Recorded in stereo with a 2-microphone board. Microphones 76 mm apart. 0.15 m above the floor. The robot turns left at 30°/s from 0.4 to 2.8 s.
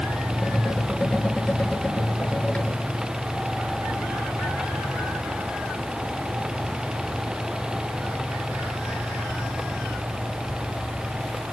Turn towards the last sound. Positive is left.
No sound to turn to.